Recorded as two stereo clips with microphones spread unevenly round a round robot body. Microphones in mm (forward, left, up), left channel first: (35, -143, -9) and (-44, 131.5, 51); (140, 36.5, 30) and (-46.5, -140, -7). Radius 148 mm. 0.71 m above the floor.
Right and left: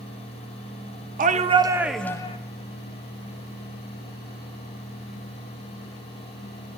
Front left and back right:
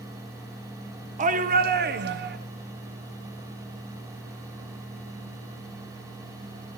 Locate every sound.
1.2 s a shout: 170° left, 1.5 m; by 2.4 s 125° right, 1.3 m